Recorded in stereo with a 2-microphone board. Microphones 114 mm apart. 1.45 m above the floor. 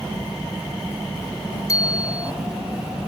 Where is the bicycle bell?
30° left (ahead or behind).